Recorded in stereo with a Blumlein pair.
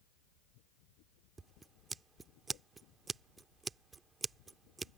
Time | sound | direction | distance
1.4 | scissors | 15° right | ?